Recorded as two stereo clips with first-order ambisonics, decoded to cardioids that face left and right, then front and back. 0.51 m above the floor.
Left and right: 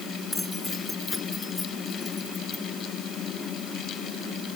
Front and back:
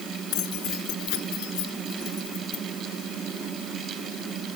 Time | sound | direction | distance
0.3 | keys jangling | 5° left | ?